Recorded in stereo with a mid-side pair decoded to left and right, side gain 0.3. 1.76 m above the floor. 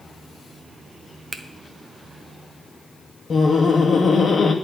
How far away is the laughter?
About 2.5 m.